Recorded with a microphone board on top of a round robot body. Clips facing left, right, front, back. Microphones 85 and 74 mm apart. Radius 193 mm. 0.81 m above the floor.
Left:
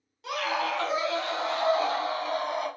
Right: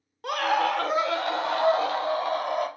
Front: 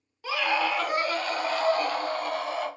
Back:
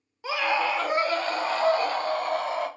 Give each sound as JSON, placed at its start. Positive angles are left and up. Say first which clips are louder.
{"t": 0.2, "sound": "a scream", "louder": "right 5 dB, back 1 dB", "azimuth_deg": -115, "distance_m": 1.4}